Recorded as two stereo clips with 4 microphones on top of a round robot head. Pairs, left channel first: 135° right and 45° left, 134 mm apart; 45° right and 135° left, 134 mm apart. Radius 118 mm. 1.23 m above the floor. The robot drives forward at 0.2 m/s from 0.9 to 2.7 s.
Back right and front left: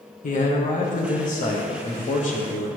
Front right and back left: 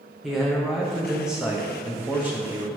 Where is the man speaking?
135° right, 0.9 m; by 2.7 s 150° right, 1.2 m.